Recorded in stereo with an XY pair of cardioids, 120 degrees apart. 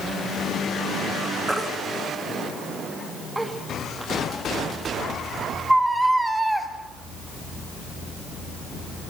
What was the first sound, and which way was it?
A baby crying, 10° right.